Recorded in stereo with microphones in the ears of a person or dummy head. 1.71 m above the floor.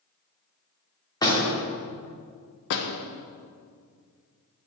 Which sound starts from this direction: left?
A door slam, at 2.7 s.